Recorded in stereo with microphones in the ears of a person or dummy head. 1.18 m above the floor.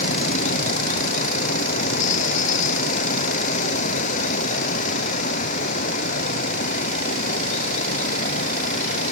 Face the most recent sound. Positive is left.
turn(degrees=40)  # may be behind; listen again after turning